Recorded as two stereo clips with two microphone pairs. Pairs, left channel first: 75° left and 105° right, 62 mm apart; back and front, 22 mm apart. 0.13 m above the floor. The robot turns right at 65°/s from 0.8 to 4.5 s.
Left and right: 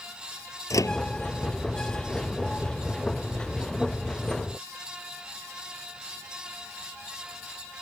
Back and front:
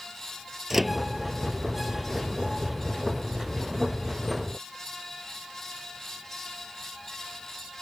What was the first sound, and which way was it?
A microwave, 80° left.